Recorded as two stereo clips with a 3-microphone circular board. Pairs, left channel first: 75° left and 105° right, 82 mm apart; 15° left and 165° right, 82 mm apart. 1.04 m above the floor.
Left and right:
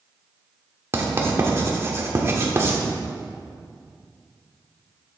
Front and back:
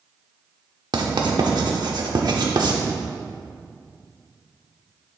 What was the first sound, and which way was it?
Writing, 155° right.